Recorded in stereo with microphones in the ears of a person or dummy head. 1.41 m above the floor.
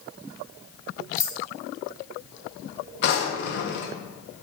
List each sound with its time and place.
1.2 s keys jangling: 20° left (ahead or behind), 3.5 m
3.0 s a drawer: 60° left (ahead or behind), 1.1 m